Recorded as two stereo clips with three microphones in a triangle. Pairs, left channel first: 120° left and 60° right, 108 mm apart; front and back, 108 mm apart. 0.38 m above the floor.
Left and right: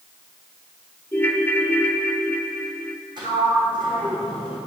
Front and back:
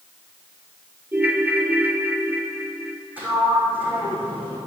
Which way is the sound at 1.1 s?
150° left.